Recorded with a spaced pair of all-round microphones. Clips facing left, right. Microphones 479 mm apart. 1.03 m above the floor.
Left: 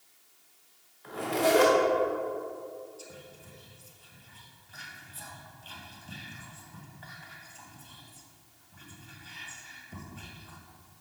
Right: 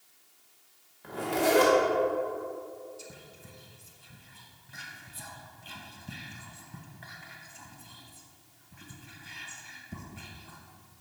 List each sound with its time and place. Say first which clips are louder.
1.0 s a zipper: even; 65° right (ahead or behind), 1.7 m
3.0 s whispering: left 1 dB; 40° right (ahead or behind), 0.9 m